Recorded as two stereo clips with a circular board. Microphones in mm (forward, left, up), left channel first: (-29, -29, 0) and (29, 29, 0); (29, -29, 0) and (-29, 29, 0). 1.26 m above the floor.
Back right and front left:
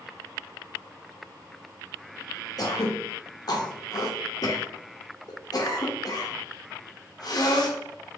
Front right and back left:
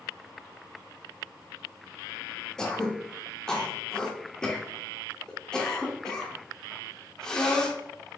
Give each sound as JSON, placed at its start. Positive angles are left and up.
{"t": 2.6, "sound": "throat clearing", "azimuth_deg": -125, "distance_m": 0.8}